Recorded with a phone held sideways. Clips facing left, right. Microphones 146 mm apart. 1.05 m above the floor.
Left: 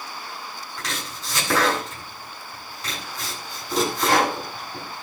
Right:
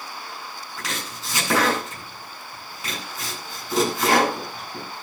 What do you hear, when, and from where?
0.8 s chopping: 5° right (ahead or behind), 9 m